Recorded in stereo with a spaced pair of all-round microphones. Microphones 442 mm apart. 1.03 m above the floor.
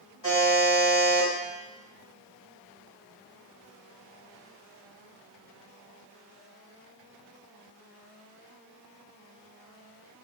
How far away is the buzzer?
About 1.5 m.